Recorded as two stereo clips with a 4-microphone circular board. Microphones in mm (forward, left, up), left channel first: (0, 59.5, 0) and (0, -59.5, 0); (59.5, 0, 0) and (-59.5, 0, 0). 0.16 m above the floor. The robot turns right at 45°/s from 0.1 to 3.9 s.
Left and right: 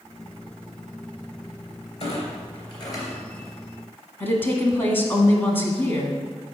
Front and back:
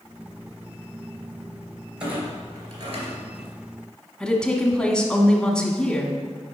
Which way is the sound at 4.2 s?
70° left.